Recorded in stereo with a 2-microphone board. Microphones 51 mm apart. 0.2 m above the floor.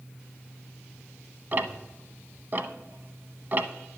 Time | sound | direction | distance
1.5 | ticking | 40° right (ahead or behind) | 0.6 m